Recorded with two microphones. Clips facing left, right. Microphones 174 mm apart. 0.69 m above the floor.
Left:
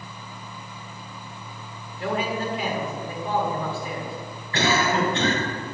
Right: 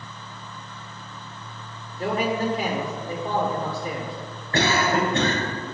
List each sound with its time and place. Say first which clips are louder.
2.0 s a man speaking: right 2 dB; 40° right (ahead or behind), 1.8 m
4.5 s a cough: right 1 dB; 50° right (ahead or behind), 3 m